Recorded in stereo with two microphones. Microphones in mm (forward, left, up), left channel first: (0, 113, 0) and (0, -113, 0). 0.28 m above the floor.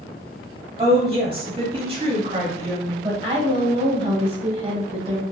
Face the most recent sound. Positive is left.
turn(degrees=-25)  # may be behind; listen again after turning